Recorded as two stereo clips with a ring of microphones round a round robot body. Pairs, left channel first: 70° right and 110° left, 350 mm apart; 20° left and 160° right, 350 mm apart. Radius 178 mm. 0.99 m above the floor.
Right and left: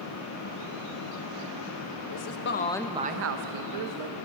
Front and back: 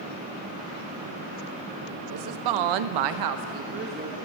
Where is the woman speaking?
110° right, 0.9 m; by 4.2 s 130° left, 1.2 m.